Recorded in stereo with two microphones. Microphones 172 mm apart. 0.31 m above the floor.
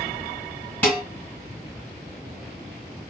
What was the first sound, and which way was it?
Dishes clattering, 10° left (ahead or behind).